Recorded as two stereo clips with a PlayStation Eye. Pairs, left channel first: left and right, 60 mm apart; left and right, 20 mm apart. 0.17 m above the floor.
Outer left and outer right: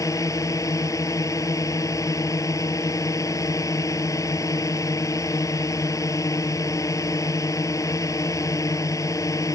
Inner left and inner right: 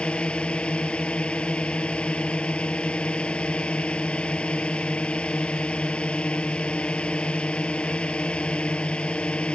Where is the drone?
65° left (ahead or behind).